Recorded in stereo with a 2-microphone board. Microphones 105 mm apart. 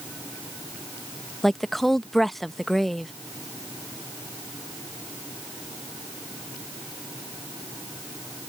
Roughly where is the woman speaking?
Centre.